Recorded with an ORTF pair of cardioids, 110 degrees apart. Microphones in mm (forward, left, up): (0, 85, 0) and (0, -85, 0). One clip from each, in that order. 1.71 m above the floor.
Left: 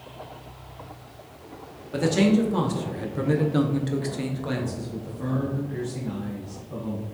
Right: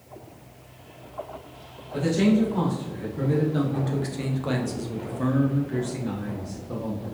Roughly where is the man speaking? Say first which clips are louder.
Left 1 dB; ahead left.